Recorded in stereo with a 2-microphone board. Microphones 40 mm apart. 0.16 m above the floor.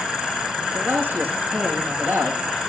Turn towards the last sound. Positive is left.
turn(degrees=-60)  # may be behind; listen again after turning